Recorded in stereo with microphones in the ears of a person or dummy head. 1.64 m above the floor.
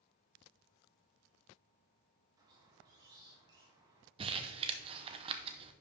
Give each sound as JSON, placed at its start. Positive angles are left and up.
{"t": 2.4, "sound": "a squeak", "side_deg": -20, "distance_m": 1.5}
{"t": 4.2, "sound": "crumpling", "side_deg": -30, "distance_m": 0.8}